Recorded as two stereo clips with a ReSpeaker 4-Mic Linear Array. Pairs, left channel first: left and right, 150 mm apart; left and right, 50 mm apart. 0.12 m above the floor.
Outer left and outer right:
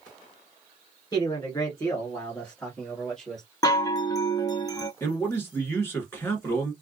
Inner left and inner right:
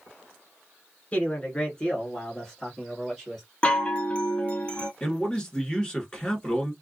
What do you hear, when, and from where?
1.1 s a man speaking: 30° left (ahead or behind), 1.4 m; by 3.5 s 5° left (ahead or behind), 1.8 m
3.6 s a chime: 25° left (ahead or behind), 0.6 m
5.0 s a man speaking: 15° left (ahead or behind), 1.5 m